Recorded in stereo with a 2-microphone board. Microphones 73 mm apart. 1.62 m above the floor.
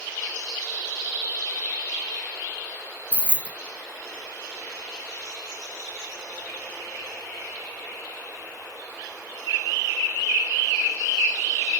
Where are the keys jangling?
15° left (ahead or behind), 0.6 m.